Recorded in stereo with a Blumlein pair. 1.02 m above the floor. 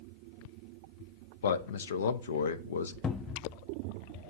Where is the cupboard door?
15° left, 0.6 m.